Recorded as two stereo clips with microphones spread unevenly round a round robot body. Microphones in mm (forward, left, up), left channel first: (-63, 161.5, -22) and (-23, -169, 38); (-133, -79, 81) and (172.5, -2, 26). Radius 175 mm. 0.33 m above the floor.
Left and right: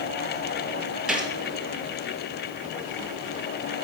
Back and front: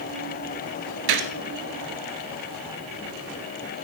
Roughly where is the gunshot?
Ahead.